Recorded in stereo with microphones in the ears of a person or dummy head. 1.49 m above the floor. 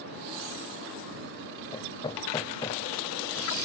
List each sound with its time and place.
1.7 s hammering: 20° left (ahead or behind)